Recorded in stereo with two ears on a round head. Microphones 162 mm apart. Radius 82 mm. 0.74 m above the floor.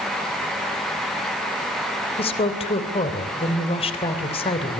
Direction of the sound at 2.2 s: 35° left (ahead or behind).